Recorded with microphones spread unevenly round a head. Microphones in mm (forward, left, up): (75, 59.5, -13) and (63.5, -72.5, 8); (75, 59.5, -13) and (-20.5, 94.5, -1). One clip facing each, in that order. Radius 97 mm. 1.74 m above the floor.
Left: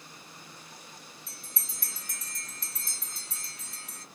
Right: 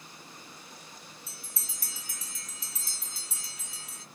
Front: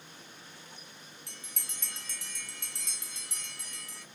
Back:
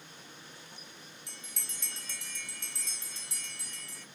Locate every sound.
1.3 s a bell: 30° right, 0.9 m